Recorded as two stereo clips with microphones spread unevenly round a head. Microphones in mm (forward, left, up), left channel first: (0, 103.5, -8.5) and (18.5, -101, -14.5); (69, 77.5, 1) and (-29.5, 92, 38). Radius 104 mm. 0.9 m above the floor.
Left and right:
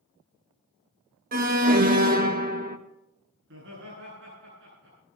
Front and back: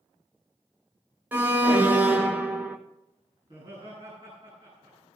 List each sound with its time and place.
1.3 s an alarm: 95° right, 1.6 m
3.4 s laughter: 120° right, 10 m